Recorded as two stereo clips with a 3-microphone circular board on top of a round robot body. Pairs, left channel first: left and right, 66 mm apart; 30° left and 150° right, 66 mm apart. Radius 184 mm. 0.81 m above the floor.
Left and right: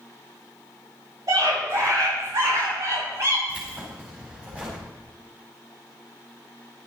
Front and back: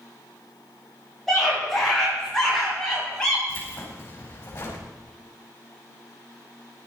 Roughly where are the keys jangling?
Ahead right.